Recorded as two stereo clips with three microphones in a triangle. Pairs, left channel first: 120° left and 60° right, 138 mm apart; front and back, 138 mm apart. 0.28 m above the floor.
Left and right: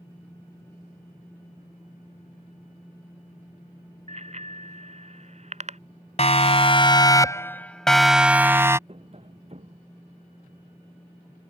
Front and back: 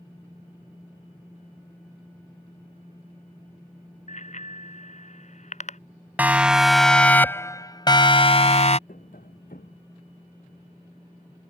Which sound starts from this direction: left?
A siren, at 6.2 s.